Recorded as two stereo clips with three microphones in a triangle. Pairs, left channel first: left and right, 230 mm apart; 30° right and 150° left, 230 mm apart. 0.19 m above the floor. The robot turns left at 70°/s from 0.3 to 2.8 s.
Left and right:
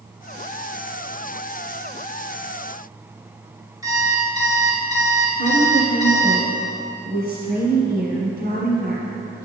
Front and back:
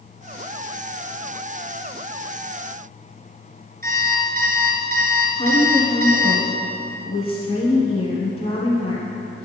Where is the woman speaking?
85° right, 1.4 m.